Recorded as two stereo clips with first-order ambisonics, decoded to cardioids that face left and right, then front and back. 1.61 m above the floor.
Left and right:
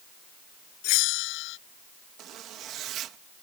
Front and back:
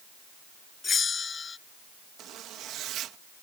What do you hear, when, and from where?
0.8 s a bell: 70° left
2.2 s a zipper: 135° right